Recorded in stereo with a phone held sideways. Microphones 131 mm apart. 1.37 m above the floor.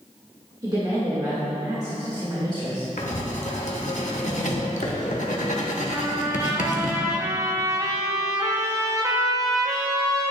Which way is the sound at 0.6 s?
35° right (ahead or behind).